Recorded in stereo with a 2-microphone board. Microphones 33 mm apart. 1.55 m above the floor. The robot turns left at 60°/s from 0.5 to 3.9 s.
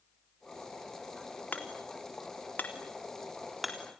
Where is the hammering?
55° left (ahead or behind), 3.5 m; by 4.0 s 20° right (ahead or behind), 3.5 m.